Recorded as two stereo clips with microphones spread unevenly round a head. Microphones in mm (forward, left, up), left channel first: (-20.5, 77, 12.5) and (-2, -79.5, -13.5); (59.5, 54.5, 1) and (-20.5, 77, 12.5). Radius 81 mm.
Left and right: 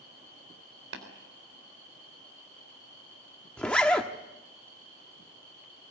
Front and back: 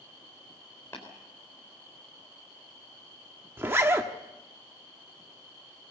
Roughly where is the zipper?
Behind.